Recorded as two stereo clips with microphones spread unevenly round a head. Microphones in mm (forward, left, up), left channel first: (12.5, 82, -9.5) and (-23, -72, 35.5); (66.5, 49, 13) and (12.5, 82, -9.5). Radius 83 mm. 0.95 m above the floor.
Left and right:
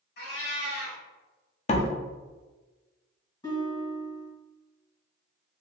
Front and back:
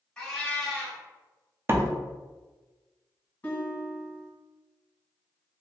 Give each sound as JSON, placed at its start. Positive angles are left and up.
{"t": 0.2, "sound": "a cat meowing", "azimuth_deg": 40, "distance_m": 1.8}
{"t": 1.7, "sound": "a door slam", "azimuth_deg": 110, "distance_m": 0.6}
{"t": 3.4, "sound": "a guitar", "azimuth_deg": 5, "distance_m": 1.6}